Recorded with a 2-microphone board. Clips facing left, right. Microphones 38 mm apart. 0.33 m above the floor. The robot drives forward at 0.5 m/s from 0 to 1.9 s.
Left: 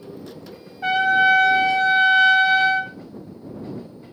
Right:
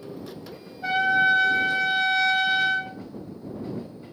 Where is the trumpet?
65° left (ahead or behind), 0.7 m; by 2.9 s 45° left (ahead or behind), 0.9 m.